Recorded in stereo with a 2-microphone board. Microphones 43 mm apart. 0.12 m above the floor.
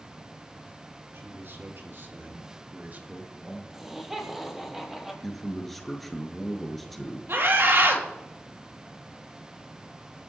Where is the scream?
60° right (ahead or behind), 3.5 m.